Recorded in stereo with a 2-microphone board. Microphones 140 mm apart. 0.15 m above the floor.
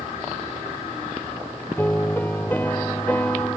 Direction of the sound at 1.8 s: 15° left (ahead or behind).